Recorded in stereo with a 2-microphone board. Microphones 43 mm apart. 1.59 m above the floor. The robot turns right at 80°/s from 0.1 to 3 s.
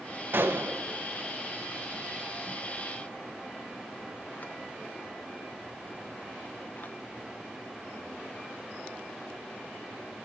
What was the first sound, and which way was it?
A gunshot, 55° right (ahead or behind).